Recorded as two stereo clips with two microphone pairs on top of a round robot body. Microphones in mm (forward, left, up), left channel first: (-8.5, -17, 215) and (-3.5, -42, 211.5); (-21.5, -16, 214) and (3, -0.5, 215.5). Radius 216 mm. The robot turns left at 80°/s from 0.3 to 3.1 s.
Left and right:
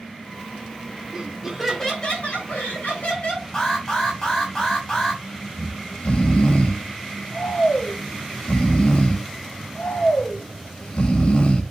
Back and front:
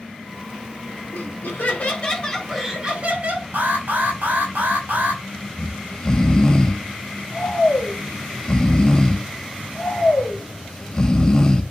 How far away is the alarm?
About 5.5 m.